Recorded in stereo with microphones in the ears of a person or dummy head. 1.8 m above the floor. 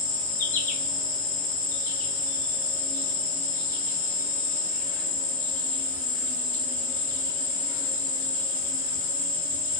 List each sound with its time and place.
0.0 s an insect: 45° left (ahead or behind), 3 m